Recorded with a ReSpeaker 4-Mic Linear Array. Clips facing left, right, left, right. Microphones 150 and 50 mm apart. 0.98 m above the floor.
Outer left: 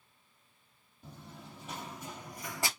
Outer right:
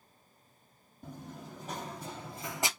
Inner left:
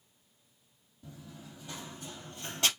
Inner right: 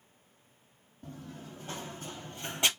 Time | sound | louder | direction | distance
1.0 | running footsteps | outer right 5 dB, inner right 4 dB | 45° right (ahead or behind) | 1.8 m